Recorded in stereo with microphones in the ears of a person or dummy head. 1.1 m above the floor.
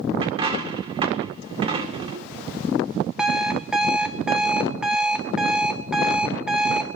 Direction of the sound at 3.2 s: 10° right (ahead or behind).